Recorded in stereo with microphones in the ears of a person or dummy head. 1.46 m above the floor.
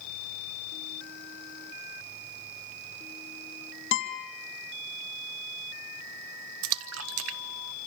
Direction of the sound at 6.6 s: 75° right (ahead or behind).